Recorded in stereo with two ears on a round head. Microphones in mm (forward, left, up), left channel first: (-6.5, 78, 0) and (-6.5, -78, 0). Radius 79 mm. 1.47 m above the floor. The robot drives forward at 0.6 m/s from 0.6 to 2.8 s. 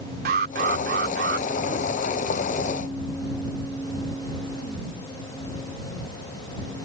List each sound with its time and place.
0.2 s an alarm: 55° right (ahead or behind); by 1.5 s 65° right (ahead or behind)